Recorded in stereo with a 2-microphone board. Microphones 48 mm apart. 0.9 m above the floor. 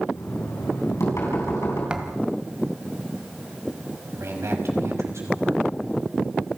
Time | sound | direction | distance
0.1 | knocking | 70° left (ahead or behind) | 7 m
1.9 | a thud | 20° right (ahead or behind) | 2.0 m
4.1 | a man speaking | 70° right (ahead or behind) | 5.5 m